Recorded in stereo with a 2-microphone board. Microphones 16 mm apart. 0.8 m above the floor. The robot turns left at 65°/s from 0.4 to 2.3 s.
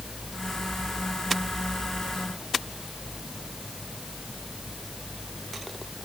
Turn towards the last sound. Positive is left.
No sound to turn to.